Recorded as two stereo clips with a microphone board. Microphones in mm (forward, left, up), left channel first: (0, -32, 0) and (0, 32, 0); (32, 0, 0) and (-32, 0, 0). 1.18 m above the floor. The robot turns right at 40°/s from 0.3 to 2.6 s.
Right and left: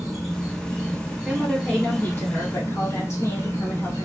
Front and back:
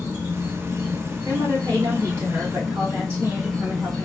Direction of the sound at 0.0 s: 175° right.